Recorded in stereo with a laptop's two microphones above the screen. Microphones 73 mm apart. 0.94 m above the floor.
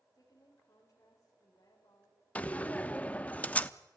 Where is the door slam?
20° left (ahead or behind), 0.8 m.